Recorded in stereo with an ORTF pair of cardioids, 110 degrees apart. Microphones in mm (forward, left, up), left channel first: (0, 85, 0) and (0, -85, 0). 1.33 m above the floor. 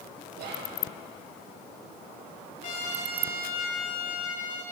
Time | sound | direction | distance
0.3 | whispering | 70° right | 1.6 m
2.6 | a trumpet | 55° left | 2.5 m